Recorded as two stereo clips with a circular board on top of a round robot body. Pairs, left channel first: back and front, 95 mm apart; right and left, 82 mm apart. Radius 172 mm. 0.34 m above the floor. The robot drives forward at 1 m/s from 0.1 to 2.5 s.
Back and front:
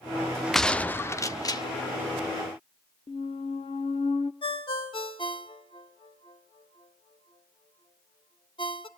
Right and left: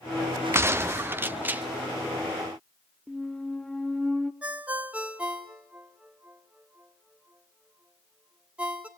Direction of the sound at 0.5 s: 95° left.